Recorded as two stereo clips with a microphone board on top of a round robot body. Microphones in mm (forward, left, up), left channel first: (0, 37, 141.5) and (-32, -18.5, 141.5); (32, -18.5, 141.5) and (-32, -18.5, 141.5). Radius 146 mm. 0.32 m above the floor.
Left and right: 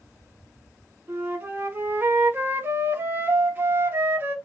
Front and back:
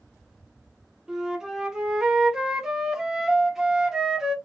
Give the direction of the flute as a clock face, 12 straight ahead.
4 o'clock.